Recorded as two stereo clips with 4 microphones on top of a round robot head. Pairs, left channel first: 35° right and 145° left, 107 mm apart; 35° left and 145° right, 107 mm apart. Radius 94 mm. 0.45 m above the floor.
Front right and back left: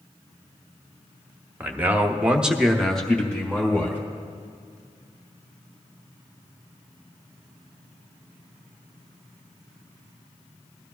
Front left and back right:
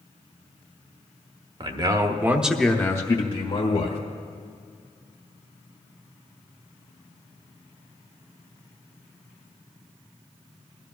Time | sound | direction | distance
1.6 | a man speaking | 150° right | 1.4 m